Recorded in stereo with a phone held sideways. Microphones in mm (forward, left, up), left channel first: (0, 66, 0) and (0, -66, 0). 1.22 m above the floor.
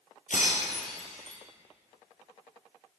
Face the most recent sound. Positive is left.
turn(degrees=70)  # may be behind; listen again after turning